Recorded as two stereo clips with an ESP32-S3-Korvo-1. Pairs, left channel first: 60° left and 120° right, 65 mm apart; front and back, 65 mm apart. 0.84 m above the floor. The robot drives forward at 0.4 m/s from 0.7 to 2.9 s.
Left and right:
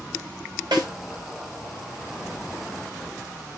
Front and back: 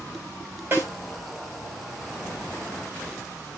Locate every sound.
0.7 s a snare drum: 120° right, 4.5 m